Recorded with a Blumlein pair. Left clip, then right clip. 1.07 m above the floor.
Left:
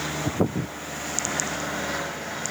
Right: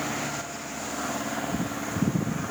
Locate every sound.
Only background noise.